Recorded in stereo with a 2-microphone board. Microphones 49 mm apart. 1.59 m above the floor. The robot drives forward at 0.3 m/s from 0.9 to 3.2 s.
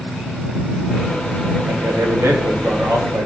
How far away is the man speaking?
About 3 m.